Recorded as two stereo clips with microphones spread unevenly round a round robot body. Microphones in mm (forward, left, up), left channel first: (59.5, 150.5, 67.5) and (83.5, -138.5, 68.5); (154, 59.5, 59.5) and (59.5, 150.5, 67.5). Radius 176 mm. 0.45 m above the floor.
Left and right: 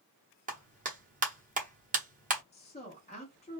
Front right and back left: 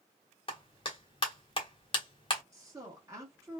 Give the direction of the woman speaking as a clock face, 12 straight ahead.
9 o'clock.